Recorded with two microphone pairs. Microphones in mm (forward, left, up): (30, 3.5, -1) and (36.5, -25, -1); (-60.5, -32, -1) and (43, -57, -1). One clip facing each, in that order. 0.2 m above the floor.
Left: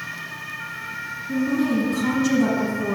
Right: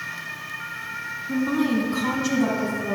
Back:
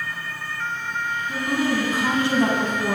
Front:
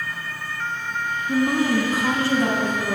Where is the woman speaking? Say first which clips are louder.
Left 1 dB, front 4 dB; 60° right, 1.6 m; by 3.0 s 165° left, 1.6 m.